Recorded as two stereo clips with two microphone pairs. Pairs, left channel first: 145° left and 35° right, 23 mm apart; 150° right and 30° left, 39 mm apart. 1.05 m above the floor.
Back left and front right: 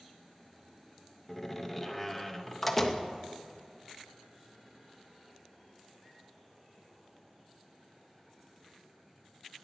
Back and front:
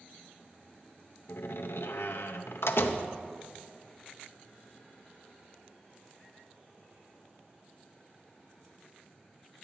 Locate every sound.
1.3 s a door slam: 140° right, 0.6 m